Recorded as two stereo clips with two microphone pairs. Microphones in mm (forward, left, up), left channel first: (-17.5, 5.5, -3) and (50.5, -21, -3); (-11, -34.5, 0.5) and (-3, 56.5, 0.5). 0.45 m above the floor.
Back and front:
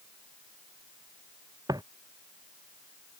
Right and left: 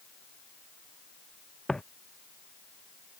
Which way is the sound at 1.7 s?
10° right.